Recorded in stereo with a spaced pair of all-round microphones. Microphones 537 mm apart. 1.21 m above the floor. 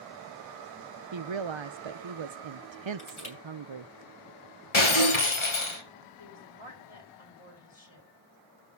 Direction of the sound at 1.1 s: 55° right (ahead or behind).